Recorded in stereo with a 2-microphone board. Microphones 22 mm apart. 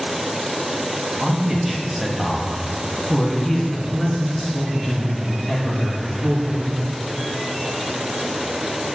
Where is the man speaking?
20° right (ahead or behind), 1.1 m; by 6.6 s 5° left (ahead or behind), 5 m.